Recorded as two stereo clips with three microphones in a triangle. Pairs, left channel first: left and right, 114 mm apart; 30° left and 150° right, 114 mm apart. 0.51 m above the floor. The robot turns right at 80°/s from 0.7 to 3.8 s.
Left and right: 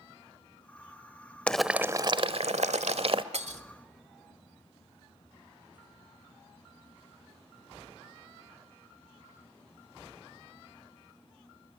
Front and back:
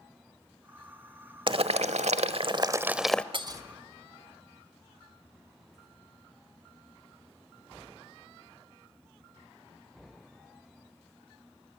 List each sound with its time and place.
1.5 s boiling: 170° left, 1.0 m; by 3.2 s 50° right, 1.0 m
3.3 s breaking glass: 110° right, 1.3 m; by 3.6 s 85° right, 1.3 m